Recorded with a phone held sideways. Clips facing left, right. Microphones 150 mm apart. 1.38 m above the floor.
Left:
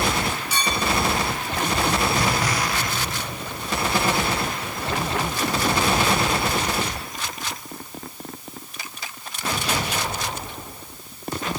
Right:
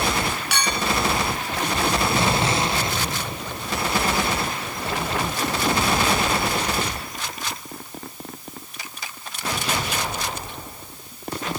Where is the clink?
75° right (ahead or behind), 1.2 m.